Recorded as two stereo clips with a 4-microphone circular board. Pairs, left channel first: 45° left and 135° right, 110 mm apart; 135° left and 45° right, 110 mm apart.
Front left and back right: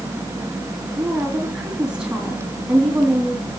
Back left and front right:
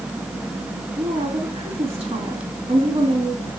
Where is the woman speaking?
55° right, 3 m.